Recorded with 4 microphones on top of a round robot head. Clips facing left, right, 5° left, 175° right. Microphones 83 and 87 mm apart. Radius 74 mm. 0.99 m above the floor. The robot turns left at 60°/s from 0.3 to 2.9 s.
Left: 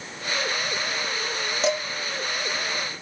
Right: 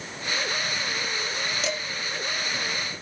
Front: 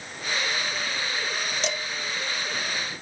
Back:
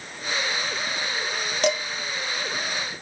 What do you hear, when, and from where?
1.6 s dishes clattering: 150° left, 0.7 m; by 1.8 s 140° left, 0.7 m